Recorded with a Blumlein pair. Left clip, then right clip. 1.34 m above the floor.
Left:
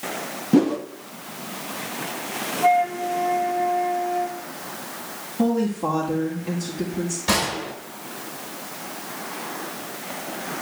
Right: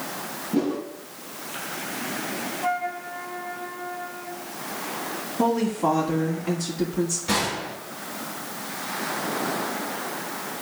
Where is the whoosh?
30° left, 1.2 m.